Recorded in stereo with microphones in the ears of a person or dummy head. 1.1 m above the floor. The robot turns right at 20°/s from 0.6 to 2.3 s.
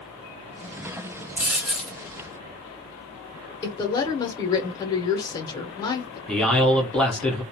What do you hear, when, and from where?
1.4 s a dropped coin: 10° right (ahead or behind), 0.8 m; by 2.0 s centre (ahead or behind), 0.8 m
3.6 s a woman speaking: 15° left (ahead or behind), 0.7 m
6.3 s a man speaking: 5° left (ahead or behind), 0.5 m